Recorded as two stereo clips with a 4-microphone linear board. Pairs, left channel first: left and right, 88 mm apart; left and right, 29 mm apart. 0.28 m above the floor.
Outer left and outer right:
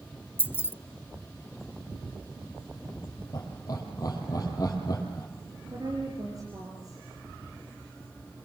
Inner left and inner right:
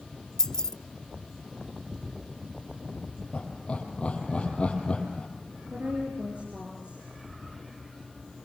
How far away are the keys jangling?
About 0.7 m.